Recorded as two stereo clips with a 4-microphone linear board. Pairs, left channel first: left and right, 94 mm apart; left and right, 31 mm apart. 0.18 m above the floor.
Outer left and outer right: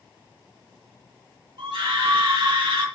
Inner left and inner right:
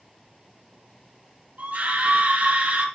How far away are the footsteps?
I don't hear footsteps.